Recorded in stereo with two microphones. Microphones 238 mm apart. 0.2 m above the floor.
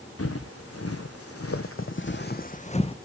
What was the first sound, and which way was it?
Footsteps, 75° left (ahead or behind).